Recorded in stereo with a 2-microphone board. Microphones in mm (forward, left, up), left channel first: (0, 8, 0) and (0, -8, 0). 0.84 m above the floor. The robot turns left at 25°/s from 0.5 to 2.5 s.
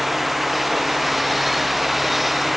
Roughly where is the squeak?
I don't hear a squeak.